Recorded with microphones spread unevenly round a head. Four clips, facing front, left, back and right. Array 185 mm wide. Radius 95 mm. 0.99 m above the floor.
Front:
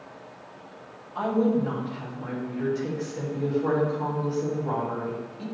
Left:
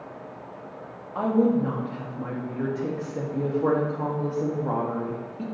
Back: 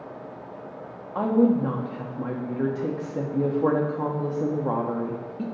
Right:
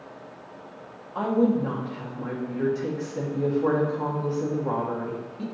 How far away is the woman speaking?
About 1.4 m.